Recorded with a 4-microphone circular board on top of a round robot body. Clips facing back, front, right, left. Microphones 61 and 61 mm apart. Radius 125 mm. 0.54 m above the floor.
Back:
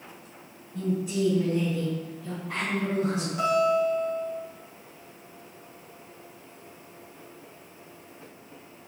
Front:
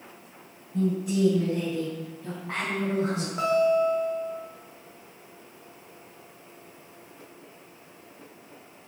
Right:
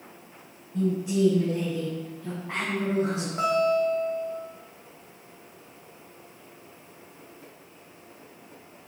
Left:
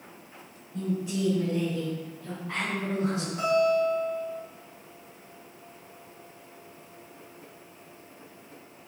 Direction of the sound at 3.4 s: 45° right.